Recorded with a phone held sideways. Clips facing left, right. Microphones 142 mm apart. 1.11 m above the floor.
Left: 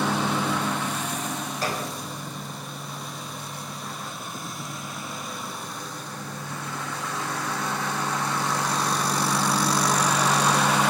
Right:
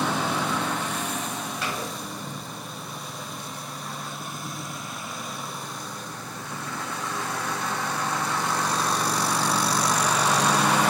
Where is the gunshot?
40° left (ahead or behind), 4.5 m.